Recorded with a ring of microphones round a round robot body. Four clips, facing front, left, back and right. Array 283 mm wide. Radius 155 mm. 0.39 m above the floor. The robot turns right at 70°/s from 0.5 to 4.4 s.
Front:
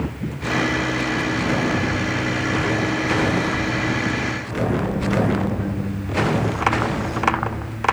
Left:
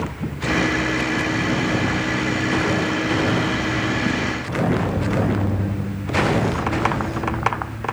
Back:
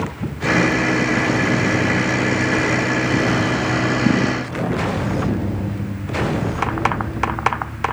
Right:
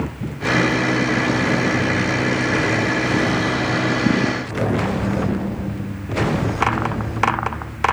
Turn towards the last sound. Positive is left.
No sound to turn to.